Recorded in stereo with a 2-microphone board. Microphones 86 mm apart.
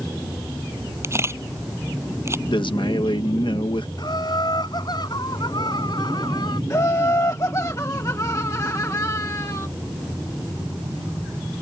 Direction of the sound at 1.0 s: 35° right (ahead or behind).